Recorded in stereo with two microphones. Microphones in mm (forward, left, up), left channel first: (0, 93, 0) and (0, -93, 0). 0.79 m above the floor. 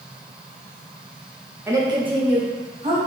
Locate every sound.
1.7 s a woman speaking: 15° right (ahead or behind), 0.6 m; by 3.0 s 40° right (ahead or behind), 1.3 m